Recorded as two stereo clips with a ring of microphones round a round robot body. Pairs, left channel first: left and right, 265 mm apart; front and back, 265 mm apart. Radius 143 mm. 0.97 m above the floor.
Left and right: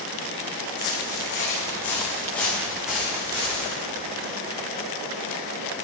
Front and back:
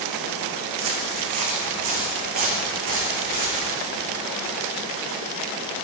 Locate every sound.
0.8 s footsteps: 145° left, 3.5 m; by 3.7 s 170° right, 5 m